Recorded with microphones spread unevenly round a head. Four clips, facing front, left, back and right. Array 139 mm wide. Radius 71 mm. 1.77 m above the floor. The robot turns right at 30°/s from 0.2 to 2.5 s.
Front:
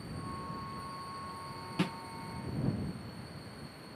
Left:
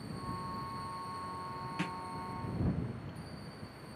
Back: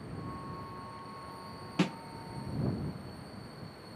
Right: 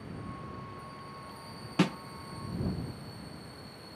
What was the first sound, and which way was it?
A snare drum, 110° right.